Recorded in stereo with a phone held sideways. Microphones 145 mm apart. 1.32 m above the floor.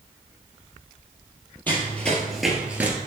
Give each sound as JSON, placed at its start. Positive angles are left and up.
{"t": 1.7, "sound": "running footsteps", "side_deg": 10, "distance_m": 1.8}